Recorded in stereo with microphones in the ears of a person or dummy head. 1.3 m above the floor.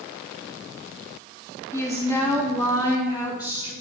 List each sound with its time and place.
1.7 s a woman speaking: 20° left (ahead or behind), 1.0 m; by 3.7 s 30° left (ahead or behind), 2 m